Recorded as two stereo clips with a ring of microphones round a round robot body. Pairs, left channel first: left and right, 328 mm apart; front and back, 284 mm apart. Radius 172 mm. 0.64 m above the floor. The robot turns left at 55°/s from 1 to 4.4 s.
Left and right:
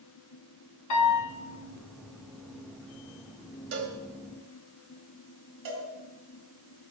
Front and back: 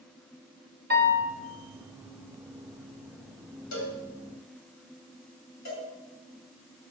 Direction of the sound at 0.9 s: 125° left.